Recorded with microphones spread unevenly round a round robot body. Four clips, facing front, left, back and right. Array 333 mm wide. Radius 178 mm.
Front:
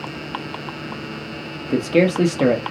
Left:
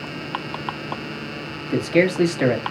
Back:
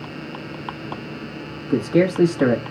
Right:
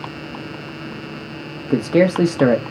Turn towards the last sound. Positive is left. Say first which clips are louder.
# right 3 dB, front 1 dB
turn(degrees=-75)